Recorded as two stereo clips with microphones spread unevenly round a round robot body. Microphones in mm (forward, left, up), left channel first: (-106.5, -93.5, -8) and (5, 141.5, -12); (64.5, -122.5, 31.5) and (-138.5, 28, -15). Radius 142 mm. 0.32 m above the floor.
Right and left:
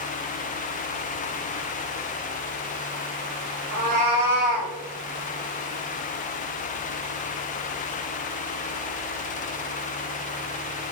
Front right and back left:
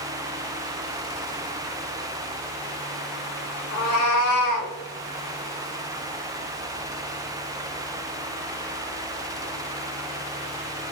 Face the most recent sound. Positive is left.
turn(degrees=-35)